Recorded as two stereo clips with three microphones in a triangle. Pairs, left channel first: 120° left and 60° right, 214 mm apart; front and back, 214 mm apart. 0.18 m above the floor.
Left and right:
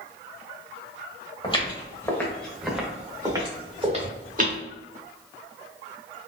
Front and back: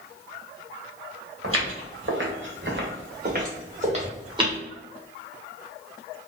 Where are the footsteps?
175° right, 1.6 m; by 4.6 s 110° right, 1.7 m.